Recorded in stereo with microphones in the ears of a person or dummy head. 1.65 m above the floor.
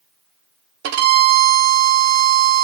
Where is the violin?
60° right (ahead or behind), 0.8 m.